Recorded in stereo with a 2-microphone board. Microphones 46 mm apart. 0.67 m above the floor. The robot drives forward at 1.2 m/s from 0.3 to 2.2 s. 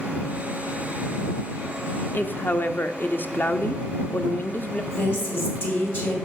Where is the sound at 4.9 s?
55° left (ahead or behind), 3 m.